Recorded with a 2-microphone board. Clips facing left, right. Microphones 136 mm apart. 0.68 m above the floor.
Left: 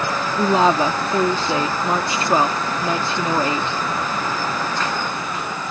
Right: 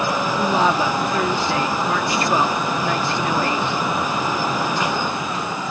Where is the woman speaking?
25° left (ahead or behind).